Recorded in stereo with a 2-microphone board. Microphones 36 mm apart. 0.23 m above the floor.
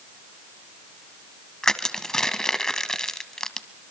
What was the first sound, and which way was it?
Crushing, 15° left (ahead or behind).